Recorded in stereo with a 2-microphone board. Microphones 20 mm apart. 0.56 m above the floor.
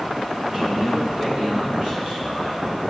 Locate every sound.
0.5 s a man speaking: 30° right (ahead or behind), 1.3 m; by 2.8 s 45° right (ahead or behind), 2 m